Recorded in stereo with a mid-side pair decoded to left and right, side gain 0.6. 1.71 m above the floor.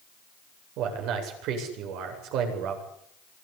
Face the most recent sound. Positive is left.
turn(degrees=-70)